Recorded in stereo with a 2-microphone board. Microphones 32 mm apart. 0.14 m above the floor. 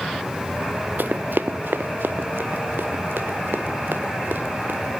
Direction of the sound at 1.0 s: 65° right (ahead or behind).